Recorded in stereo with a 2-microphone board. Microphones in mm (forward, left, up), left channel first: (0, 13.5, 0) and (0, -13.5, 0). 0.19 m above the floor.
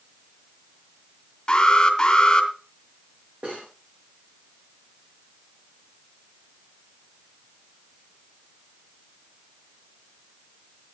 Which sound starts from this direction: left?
An alarm, at 1.5 s.